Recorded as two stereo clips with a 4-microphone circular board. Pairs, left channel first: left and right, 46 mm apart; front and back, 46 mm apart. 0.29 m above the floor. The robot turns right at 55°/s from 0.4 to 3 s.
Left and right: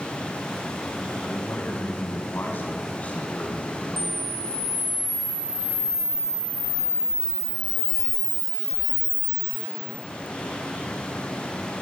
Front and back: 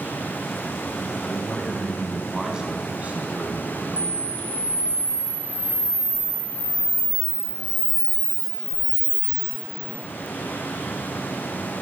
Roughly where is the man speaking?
Ahead left.